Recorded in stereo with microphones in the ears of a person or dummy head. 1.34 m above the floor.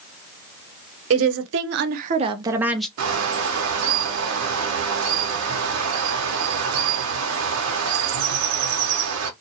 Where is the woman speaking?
75° right (ahead or behind), 0.9 m; by 2.9 s 5° left (ahead or behind), 0.6 m.